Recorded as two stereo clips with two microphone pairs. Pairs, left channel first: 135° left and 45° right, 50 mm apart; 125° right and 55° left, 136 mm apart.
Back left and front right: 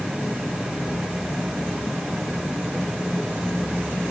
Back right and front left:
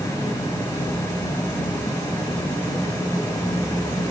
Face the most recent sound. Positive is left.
No sound to turn to.